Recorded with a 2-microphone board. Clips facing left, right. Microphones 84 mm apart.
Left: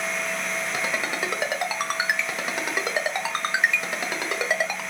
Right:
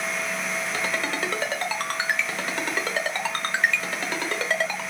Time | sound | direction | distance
0.7 | a ringtone | 15° left (ahead or behind) | 0.9 m